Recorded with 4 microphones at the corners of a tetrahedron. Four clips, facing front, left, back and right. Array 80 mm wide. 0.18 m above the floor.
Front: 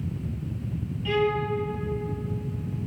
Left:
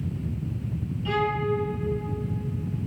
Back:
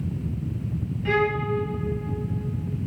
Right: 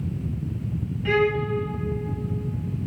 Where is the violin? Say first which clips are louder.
Right 4 dB, back 1 dB; 120° right, 2.5 m.